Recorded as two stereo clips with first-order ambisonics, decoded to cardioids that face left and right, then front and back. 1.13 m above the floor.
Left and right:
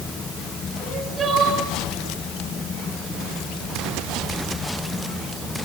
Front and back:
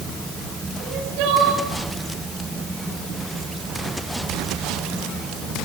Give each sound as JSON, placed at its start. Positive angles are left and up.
{"t": 0.8, "sound": "crying", "azimuth_deg": -160, "distance_m": 8.0}